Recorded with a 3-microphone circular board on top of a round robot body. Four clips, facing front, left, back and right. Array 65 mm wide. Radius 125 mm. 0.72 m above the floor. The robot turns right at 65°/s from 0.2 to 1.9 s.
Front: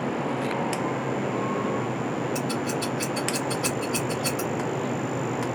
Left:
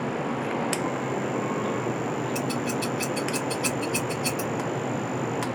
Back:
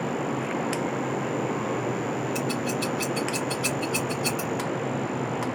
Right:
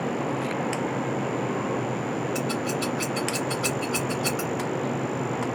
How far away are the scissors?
About 0.5 m.